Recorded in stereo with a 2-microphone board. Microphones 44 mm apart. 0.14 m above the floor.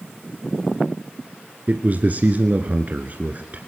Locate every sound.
1.7 s a man speaking: 40° right (ahead or behind), 1.7 m